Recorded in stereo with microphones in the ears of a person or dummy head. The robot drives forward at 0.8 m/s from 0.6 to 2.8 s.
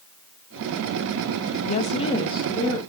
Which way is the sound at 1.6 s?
40° left (ahead or behind).